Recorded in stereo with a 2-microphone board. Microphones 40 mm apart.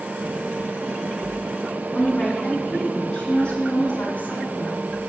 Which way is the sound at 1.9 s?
10° left (ahead or behind).